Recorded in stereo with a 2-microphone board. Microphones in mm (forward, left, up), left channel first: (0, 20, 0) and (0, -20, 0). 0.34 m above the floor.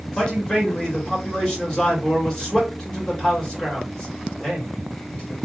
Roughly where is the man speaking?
Centre.